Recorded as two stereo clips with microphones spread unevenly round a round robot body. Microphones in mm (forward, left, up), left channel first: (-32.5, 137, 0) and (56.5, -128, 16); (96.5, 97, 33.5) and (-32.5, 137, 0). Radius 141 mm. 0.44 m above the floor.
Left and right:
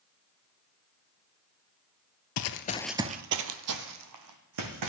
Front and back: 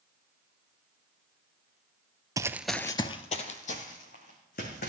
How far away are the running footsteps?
About 0.7 m.